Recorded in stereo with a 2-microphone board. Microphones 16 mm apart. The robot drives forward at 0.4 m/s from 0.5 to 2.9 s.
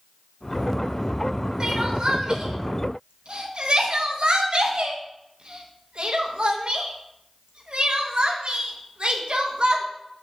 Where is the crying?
40° right (ahead or behind), 1.3 m; by 9.8 s 60° right (ahead or behind), 1.0 m.